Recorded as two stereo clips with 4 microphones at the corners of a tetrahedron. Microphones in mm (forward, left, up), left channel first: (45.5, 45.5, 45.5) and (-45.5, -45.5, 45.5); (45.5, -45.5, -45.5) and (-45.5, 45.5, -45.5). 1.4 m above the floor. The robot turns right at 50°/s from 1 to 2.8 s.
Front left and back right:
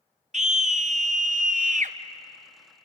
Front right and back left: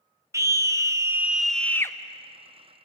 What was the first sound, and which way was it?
A scream, 160° right.